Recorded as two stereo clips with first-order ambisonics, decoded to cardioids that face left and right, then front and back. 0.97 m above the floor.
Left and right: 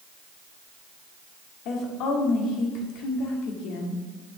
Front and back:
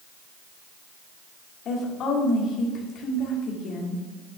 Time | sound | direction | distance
1.6 | a woman speaking | 55° left | 2.5 m